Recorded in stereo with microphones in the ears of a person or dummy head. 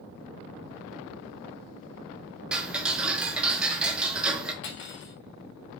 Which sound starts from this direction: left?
Cutlery clinking, at 4.6 s.